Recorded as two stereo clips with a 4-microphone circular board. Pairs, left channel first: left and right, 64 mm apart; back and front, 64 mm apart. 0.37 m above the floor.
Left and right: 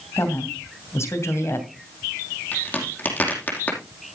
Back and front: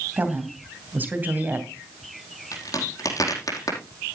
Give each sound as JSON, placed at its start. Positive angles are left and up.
{"t": 0.2, "sound": "a woman speaking", "azimuth_deg": 55, "distance_m": 2.5}
{"t": 2.5, "sound": "a crack", "azimuth_deg": 155, "distance_m": 5.0}